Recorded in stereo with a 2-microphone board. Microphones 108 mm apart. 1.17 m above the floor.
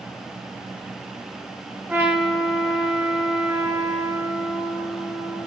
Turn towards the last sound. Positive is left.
turn(degrees=-15)  # may be behind; listen again after turning